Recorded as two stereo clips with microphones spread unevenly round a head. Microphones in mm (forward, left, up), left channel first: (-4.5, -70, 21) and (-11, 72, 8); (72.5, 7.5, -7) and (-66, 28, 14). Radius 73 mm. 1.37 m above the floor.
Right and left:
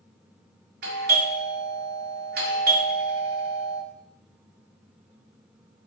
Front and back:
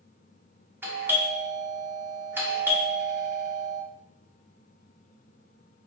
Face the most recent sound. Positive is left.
turn(degrees=95)